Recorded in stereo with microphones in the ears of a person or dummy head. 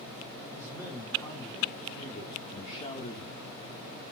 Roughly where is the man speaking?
Centre.